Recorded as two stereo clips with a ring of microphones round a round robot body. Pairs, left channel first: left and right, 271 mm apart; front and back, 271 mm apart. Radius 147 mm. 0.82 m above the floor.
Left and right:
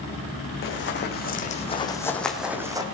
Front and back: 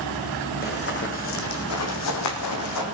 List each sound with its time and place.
0.6 s running footsteps: 50° left, 2.5 m; by 2.8 s 15° right, 2 m